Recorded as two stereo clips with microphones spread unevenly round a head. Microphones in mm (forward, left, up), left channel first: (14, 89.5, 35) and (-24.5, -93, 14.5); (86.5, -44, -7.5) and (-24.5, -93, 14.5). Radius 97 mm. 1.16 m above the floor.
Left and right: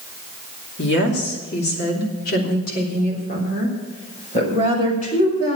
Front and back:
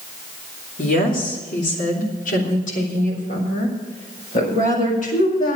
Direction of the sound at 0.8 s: 45° left.